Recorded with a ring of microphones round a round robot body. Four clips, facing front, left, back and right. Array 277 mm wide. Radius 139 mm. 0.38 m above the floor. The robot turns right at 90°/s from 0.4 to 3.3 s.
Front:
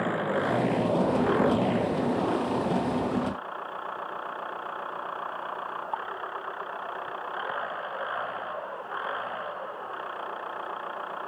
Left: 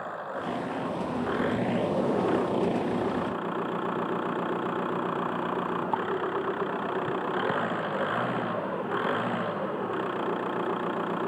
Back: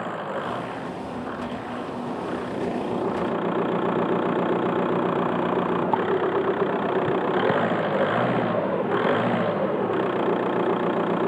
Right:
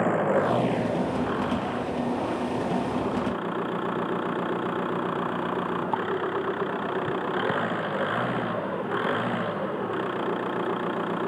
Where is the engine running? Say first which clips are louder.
Right 11 dB, front 2 dB; 75° right; by 11.3 s 175° right.